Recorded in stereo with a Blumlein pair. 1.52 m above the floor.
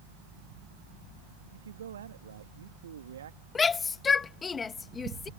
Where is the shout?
20° left.